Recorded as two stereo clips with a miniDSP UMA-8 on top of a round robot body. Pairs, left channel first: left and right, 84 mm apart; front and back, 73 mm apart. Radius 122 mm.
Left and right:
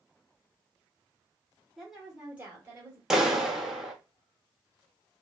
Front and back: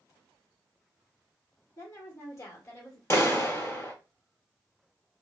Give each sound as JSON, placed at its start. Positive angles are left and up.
{"t": 1.8, "sound": "a woman speaking", "azimuth_deg": 5, "distance_m": 1.2}
{"t": 3.1, "sound": "a clap", "azimuth_deg": -10, "distance_m": 1.0}